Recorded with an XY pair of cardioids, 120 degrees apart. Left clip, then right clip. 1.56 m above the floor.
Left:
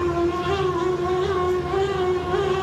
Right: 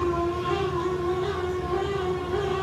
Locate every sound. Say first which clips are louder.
0.0 s a fan: left 3 dB; 45° left, 1.9 m